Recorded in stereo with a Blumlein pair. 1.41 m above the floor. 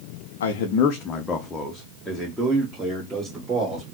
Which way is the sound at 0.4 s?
60° left.